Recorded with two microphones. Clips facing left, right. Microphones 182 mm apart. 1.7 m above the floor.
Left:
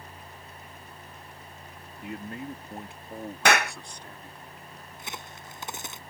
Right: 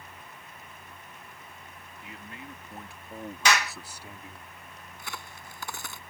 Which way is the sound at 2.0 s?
55° left (ahead or behind).